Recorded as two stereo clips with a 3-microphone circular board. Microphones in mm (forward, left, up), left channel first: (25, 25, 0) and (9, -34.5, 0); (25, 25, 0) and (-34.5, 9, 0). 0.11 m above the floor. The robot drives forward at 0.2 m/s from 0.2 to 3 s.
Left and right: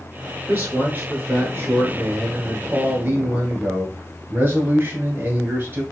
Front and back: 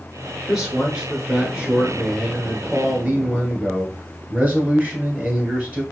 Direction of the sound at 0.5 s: 95° right.